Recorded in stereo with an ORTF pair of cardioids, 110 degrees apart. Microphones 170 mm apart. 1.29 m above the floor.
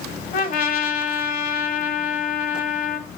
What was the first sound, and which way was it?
A trumpet, 55° left.